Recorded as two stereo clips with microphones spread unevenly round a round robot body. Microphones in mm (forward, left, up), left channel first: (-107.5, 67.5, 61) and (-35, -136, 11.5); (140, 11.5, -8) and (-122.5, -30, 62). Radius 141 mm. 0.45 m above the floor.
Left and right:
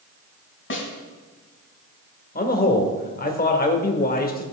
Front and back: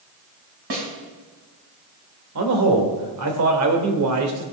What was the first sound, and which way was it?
A snare drum, 145° left.